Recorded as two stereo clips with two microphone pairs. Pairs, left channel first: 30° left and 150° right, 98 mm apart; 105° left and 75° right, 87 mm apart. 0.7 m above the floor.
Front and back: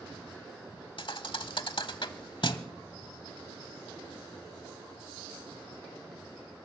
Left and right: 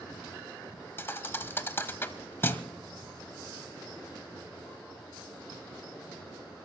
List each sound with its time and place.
1.0 s a thud: 45° left, 0.8 m